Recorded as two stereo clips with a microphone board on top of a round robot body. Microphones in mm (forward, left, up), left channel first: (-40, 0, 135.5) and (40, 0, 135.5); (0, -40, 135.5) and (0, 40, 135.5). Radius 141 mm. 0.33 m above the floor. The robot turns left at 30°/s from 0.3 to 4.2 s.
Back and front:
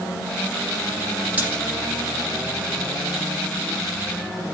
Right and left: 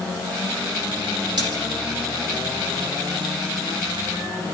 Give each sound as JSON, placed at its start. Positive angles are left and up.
{"t": 1.4, "sound": "a splash", "azimuth_deg": 70, "distance_m": 7.5}